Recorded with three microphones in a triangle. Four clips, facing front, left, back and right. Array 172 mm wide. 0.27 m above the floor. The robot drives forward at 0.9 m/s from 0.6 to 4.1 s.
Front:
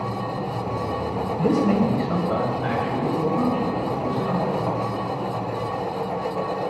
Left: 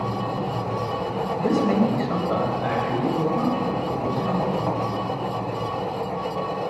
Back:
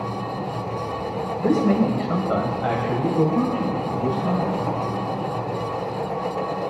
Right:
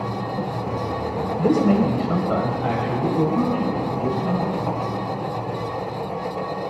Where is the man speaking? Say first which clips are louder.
Right 3 dB, back 1 dB; 35° right, 1.4 m; by 4.5 s 175° right, 2.5 m.